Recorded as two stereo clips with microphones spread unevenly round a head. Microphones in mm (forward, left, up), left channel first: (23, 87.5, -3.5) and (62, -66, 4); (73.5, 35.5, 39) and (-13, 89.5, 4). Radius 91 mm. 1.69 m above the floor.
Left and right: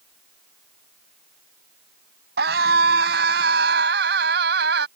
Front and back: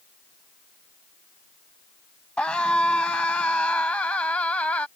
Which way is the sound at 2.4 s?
115° right.